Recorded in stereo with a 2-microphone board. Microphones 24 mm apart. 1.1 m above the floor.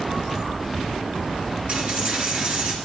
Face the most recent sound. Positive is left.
turn(degrees=-60)  # may be behind; listen again after turning